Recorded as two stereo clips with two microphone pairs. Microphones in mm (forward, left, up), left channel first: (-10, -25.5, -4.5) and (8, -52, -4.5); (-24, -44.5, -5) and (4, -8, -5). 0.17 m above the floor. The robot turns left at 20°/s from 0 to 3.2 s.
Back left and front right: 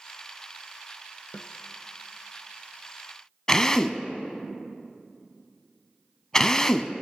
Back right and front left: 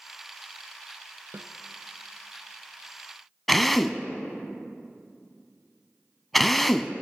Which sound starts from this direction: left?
A snare drum, at 1.3 s.